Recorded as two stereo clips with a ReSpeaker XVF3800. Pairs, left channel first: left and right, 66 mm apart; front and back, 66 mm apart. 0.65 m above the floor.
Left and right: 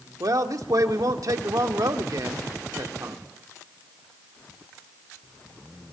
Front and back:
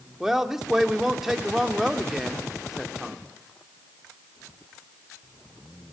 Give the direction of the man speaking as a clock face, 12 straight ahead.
3 o'clock.